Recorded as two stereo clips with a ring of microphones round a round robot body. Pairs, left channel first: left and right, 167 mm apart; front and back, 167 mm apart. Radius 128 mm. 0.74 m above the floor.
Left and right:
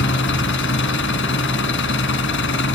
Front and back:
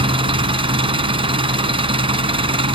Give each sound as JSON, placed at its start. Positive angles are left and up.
{"t": 0.0, "sound": "an engine running", "azimuth_deg": 120, "distance_m": 2.5}